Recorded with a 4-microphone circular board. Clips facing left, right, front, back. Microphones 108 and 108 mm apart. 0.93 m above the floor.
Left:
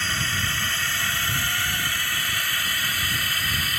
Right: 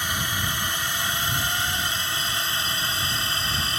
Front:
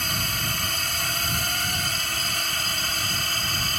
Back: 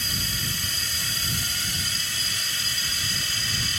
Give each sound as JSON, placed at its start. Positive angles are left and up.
{"t": 0.0, "sound": "a drone", "azimuth_deg": -15}